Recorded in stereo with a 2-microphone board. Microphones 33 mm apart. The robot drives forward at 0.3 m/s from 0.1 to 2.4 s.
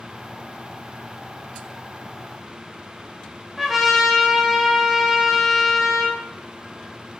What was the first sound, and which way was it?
A trumpet, 10° right (ahead or behind).